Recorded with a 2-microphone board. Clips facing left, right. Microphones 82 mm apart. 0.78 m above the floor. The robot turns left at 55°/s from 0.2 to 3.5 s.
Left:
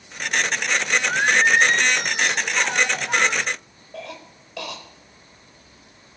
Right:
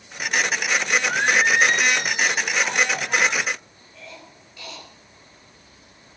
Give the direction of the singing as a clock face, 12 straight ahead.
6 o'clock.